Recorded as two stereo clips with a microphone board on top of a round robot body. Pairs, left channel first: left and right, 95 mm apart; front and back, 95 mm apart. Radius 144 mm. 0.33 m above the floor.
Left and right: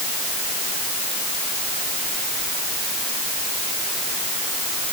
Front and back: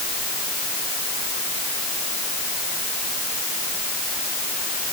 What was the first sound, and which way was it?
Only background noise.